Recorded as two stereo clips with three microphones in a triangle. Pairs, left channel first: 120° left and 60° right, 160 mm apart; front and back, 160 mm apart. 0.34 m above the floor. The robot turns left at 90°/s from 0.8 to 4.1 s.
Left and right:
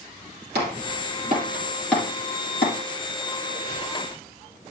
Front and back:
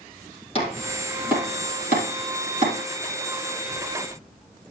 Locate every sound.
0.6 s chopping: 55° right, 5 m; by 2.8 s 130° left, 5 m